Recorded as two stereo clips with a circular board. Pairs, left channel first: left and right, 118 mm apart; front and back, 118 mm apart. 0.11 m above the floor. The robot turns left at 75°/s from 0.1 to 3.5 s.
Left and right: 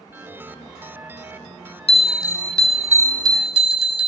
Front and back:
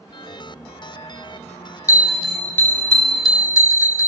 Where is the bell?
60° left, 0.6 m; by 4.1 s 60° right, 0.6 m.